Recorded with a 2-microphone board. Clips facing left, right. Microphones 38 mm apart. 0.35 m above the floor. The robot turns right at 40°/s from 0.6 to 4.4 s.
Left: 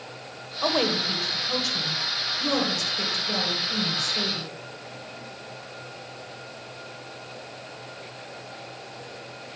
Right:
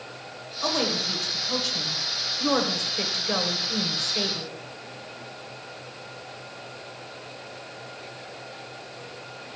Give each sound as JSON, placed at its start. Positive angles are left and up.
{"t": 0.6, "sound": "a woman speaking", "side_deg": 20, "distance_m": 1.2}